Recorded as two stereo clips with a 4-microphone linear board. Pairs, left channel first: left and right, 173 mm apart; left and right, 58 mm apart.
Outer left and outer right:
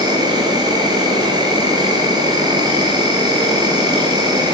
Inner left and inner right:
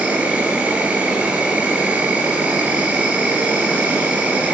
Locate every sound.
0.0 s an insect: 25° right (ahead or behind), 2 m